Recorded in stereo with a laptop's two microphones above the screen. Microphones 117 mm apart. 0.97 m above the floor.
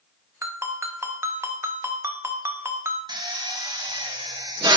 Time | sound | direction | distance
0.4 | a ringtone | 20° right (ahead or behind) | 0.5 m
3.1 | a drill | 35° right (ahead or behind) | 0.6 m